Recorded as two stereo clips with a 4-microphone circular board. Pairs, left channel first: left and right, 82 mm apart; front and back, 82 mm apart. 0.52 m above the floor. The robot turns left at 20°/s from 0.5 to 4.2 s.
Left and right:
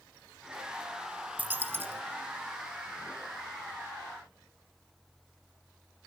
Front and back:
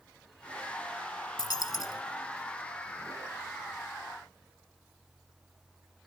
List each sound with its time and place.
1.4 s a dropped coin: 25° right, 0.8 m; by 2.0 s 35° right, 0.8 m